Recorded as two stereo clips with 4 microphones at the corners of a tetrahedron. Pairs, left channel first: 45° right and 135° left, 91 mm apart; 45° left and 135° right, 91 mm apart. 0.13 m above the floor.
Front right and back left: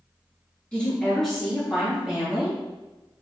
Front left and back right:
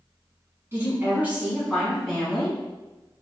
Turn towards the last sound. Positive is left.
turn(degrees=85)